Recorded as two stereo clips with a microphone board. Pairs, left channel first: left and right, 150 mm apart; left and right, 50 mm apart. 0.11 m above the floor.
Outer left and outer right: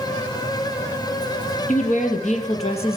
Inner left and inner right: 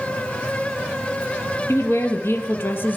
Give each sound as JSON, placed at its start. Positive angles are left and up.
{"t": 1.7, "sound": "a woman speaking", "side_deg": 60, "distance_m": 3.0}